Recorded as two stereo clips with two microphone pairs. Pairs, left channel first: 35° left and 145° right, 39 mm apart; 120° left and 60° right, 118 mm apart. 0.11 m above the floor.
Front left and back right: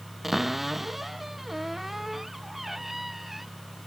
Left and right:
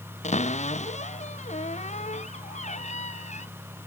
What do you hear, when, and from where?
0.2 s a cupboard door: 135° left